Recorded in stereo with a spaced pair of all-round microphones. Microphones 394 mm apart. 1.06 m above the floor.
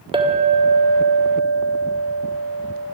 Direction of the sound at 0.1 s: 15° right (ahead or behind).